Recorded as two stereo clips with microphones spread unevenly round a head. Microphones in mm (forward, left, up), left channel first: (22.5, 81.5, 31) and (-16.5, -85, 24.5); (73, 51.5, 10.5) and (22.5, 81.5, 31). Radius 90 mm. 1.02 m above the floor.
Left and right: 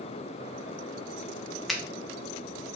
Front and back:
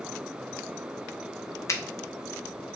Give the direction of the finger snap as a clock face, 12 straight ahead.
12 o'clock.